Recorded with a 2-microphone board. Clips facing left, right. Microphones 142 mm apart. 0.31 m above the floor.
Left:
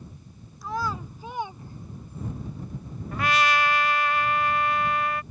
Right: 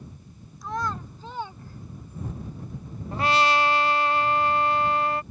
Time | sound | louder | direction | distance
0.6 | a child speaking | even | centre (ahead or behind) | ?
3.1 | a trumpet | right 2 dB | 30° right (ahead or behind) | ?